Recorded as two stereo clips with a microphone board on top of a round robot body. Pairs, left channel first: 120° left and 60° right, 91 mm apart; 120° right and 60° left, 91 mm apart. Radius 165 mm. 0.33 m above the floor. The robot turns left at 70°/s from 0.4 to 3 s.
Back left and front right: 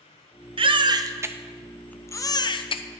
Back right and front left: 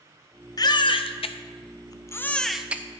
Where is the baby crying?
75° right, 0.5 m; by 2.8 s 130° left, 0.5 m.